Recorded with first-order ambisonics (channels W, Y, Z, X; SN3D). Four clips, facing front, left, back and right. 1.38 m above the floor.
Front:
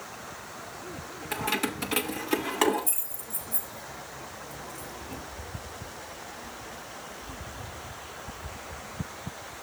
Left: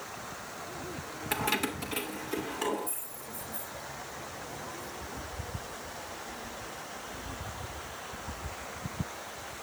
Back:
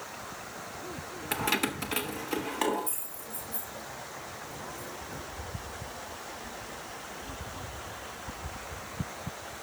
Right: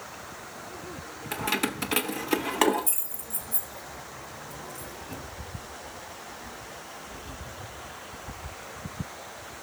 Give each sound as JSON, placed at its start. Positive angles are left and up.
{"t": 1.3, "sound": "keys jangling", "azimuth_deg": 140, "distance_m": 0.6}